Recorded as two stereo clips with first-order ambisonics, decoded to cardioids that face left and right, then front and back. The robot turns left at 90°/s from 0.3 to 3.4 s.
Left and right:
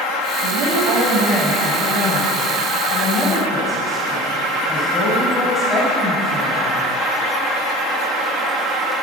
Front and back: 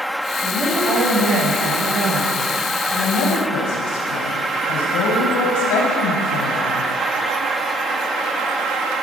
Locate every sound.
0.4 s a woman speaking: 85° right, 4.5 m; by 6.9 s 10° left, 4.5 m